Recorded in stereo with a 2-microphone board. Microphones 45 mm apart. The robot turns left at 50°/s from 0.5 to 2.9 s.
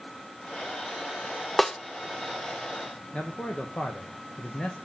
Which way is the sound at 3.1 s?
20° left (ahead or behind).